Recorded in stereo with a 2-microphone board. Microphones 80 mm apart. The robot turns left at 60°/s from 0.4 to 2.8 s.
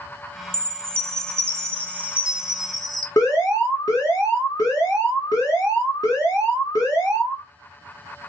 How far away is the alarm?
About 1.7 m.